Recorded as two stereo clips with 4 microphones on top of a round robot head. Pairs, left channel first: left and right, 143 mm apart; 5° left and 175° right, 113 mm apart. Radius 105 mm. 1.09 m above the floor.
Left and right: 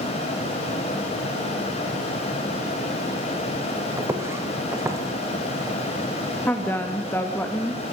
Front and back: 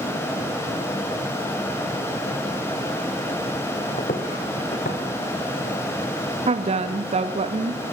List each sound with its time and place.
4.0 s footsteps: 20° right, 3 m
6.5 s a woman speaking: 170° left, 1.7 m